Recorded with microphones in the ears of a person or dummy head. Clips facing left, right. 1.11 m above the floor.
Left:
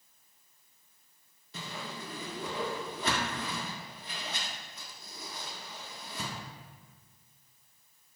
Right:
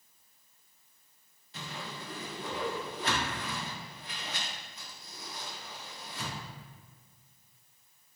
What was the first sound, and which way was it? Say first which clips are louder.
A whoosh: left 1 dB; 80° left.